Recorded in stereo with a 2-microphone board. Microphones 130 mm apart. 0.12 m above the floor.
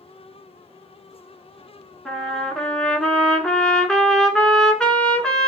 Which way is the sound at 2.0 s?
5° left (ahead or behind).